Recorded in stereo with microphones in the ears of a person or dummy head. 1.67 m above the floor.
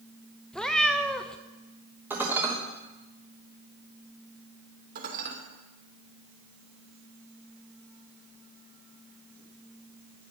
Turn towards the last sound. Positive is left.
turn(degrees=-55)  # may be behind; listen again after turning